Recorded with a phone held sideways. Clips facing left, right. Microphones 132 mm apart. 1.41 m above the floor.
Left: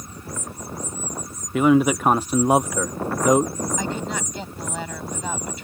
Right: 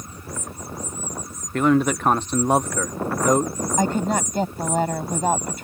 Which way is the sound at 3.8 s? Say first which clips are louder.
Right 6 dB; 45° right (ahead or behind).